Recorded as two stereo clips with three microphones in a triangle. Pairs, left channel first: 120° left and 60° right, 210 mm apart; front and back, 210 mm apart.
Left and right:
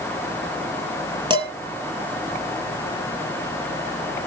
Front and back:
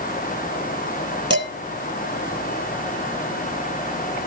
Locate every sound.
1.3 s dishes clattering: 5° left, 1.7 m